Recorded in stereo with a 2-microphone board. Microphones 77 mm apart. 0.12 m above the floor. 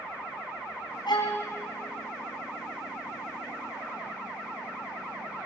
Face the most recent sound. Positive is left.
turn(degrees=75)  # may be behind; listen again after turning